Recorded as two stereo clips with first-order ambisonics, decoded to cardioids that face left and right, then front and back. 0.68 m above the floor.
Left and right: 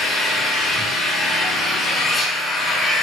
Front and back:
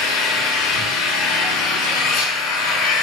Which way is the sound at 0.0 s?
10° left.